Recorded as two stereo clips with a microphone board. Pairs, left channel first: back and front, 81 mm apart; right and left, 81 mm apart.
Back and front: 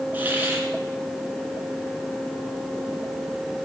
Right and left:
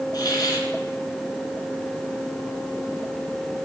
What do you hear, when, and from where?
0.1 s a hiss: 65° right, 3 m